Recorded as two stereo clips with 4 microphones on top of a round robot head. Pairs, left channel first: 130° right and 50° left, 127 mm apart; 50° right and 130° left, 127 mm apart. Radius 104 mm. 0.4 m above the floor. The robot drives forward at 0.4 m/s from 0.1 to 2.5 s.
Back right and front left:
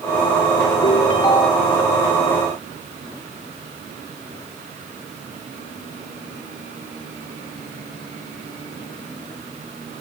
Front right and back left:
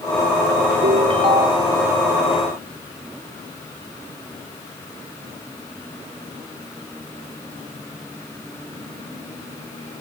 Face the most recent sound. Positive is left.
turn(degrees=180)